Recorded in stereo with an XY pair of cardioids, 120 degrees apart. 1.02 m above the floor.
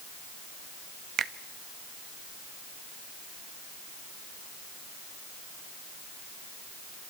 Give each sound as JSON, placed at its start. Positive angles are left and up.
{"t": 1.2, "sound": "a finger snap", "azimuth_deg": -55, "distance_m": 1.1}